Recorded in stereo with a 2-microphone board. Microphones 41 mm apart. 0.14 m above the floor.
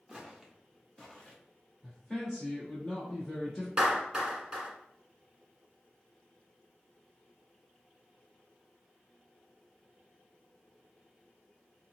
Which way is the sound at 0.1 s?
5° right (ahead or behind).